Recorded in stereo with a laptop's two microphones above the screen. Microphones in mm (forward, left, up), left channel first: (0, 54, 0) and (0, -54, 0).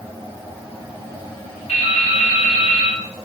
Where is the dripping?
85° left, 2.5 m.